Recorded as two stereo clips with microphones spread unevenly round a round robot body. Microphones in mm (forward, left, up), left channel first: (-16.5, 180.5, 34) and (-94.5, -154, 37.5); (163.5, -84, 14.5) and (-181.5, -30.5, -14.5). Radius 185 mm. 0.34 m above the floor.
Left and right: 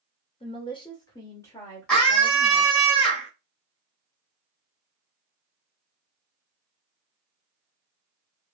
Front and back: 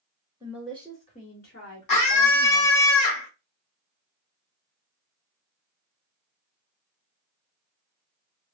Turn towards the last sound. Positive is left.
turn(degrees=-10)